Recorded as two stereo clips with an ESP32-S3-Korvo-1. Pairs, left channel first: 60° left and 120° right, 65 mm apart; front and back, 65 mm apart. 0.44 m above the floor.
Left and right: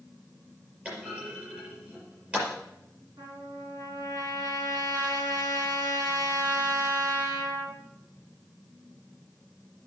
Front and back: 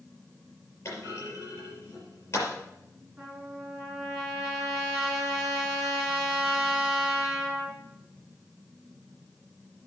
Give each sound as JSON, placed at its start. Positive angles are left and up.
{"t": 0.8, "sound": "a clunk", "azimuth_deg": -50, "distance_m": 5.5}
{"t": 3.2, "sound": "a trumpet", "azimuth_deg": -110, "distance_m": 4.0}